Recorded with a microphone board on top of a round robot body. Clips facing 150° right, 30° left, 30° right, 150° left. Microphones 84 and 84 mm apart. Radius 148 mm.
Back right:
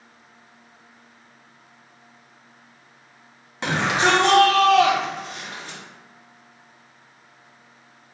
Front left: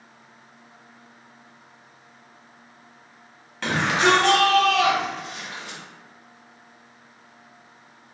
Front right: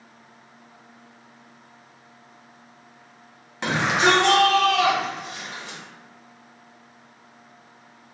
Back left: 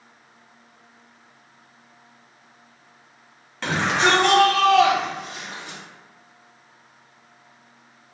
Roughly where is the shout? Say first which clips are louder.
Even, even; right.